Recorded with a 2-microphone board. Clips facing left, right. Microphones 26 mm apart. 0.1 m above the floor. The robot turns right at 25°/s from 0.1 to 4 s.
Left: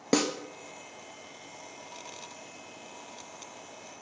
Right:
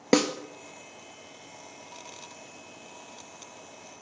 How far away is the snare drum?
About 0.5 m.